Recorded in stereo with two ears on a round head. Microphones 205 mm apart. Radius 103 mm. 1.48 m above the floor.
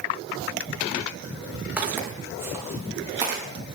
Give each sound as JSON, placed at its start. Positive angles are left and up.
{"t": 1.8, "sound": "footsteps", "side_deg": -10, "distance_m": 4.5}